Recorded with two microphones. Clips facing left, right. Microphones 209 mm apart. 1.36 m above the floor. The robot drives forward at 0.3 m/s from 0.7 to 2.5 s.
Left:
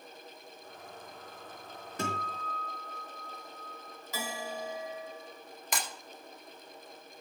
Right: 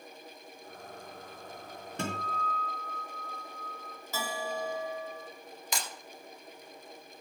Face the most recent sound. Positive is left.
turn(degrees=55)  # may be behind; listen again after turning